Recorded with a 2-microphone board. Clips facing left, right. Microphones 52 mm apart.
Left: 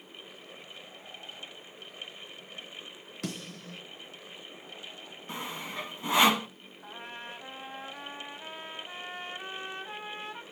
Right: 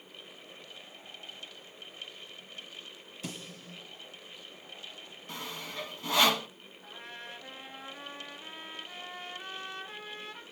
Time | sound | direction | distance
3.2 | a snare drum | 65° left (ahead or behind) | 4 m
5.3 | sawing | 20° left (ahead or behind) | 0.7 m
6.8 | a trumpet | 30° left (ahead or behind) | 1.5 m